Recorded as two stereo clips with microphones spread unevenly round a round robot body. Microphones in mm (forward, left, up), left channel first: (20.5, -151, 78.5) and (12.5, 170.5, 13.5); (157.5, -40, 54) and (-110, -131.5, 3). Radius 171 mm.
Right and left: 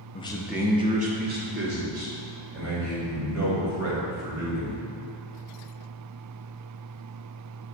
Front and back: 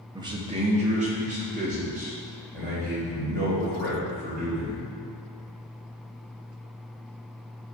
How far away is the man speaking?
About 0.7 m.